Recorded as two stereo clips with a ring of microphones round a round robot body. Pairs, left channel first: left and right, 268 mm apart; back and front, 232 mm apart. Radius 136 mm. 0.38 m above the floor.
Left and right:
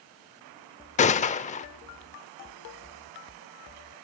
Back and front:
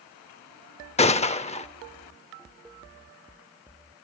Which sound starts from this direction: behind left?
A gunshot, at 1.0 s.